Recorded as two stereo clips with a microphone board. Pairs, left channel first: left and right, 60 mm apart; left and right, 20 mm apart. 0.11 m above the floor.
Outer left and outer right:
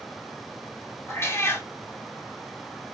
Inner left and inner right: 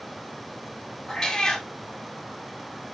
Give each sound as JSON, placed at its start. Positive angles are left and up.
{"t": 1.1, "sound": "a cat meowing", "side_deg": 40, "distance_m": 1.0}